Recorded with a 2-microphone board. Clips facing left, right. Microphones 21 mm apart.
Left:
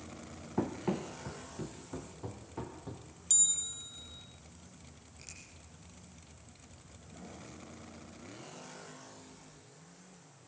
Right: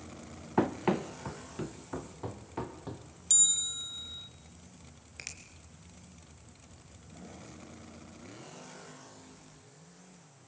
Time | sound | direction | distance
0.6 | running footsteps | 50° right (ahead or behind) | 1.1 m
3.3 | a bell | 15° right (ahead or behind) | 0.8 m
5.2 | a finger snap | 65° right (ahead or behind) | 3 m